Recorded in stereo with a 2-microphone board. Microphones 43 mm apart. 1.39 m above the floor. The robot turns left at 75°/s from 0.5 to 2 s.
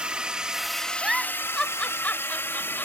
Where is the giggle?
15° right (ahead or behind); by 2.9 s 40° left (ahead or behind).